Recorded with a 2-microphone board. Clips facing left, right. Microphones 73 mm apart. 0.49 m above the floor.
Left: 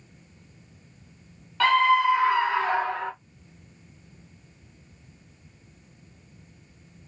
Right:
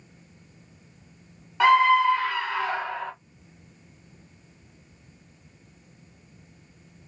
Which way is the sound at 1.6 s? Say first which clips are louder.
Right 2 dB; 15° right (ahead or behind).